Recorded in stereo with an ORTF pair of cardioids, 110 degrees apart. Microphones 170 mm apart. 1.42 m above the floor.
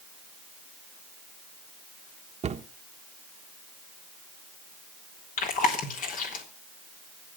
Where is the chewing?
50° left, 3.5 m.